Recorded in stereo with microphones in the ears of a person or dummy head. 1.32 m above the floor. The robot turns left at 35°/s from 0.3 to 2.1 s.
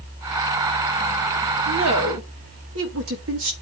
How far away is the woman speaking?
About 2.5 m.